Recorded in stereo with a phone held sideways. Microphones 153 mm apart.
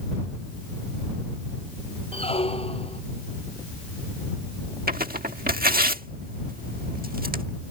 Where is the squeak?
40° left (ahead or behind).